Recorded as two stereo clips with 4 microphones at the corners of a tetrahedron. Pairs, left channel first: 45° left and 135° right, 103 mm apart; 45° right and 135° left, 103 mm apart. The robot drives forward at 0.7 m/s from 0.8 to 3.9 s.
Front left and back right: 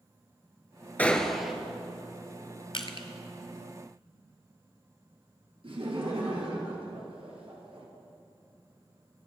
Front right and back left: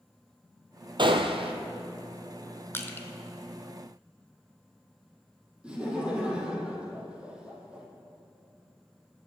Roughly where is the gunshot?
Behind left.